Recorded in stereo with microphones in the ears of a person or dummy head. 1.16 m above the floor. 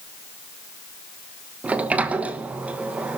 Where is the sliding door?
5° right (ahead or behind), 1.2 m.